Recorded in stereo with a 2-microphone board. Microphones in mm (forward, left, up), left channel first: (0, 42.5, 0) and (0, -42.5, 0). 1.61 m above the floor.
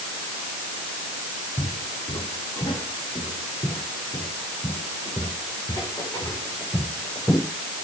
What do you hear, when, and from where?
1.6 s footsteps: 70° left (ahead or behind), 7.5 m; by 7.5 s 35° left (ahead or behind), 9.5 m